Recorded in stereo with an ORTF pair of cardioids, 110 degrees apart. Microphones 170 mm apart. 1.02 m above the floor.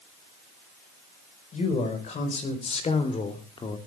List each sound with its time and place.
1.5 s a man speaking: 45° left, 5 m; by 3.8 s 30° left, 2.5 m